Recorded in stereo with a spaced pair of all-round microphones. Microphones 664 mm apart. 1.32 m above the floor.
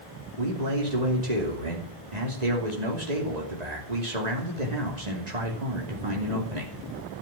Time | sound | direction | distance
0.4 | a man speaking | 75° right (ahead or behind) | 3 m